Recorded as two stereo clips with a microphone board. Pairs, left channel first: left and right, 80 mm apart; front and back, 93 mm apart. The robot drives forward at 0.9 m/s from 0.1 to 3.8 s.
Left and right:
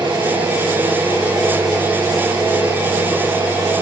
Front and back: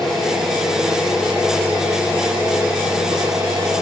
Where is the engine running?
85° right, 5 m; by 3.8 s 125° right, 6 m.